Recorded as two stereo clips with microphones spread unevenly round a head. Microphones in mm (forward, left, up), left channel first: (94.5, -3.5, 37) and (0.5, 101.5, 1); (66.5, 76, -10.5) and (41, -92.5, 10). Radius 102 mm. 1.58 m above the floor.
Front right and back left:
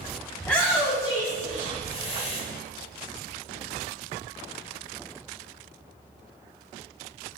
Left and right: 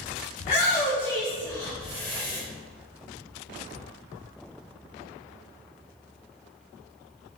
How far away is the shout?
About 0.8 m.